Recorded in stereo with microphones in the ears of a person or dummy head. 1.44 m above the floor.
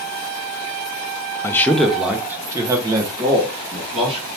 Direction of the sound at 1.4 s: 20° left (ahead or behind).